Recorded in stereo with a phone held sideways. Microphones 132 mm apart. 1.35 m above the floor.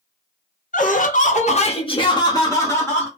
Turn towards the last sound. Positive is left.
turn(degrees=15)  # may be behind; listen again after turning